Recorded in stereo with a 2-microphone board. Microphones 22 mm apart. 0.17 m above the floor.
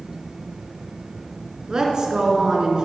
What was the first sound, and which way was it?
A woman speaking, 35° right (ahead or behind).